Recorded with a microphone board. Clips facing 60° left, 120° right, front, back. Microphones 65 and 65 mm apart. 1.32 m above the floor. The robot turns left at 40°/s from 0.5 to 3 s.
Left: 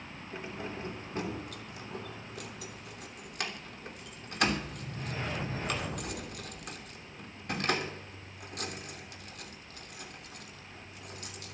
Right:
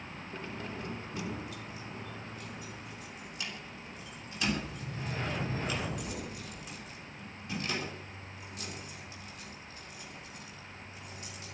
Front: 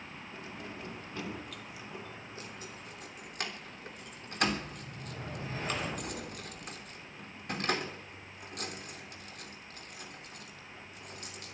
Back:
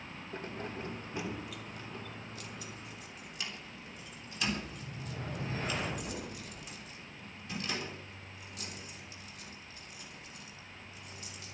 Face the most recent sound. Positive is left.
turn(degrees=35)